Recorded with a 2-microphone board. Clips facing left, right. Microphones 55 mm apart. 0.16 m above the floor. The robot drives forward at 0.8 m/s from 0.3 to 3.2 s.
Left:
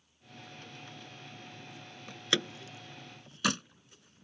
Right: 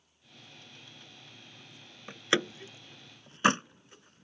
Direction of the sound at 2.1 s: 25° right (ahead or behind).